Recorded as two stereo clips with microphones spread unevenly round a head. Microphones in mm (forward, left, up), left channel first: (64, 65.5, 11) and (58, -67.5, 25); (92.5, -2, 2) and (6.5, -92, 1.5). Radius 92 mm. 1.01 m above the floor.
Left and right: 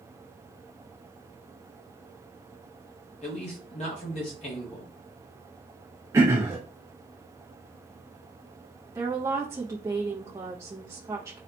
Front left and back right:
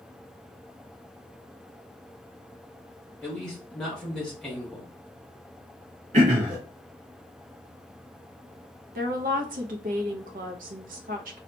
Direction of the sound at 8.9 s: 170° right.